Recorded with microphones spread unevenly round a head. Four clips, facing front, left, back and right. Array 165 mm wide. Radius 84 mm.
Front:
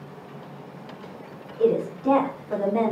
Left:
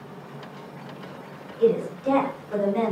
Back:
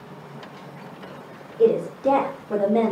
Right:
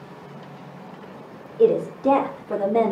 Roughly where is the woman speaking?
Behind right.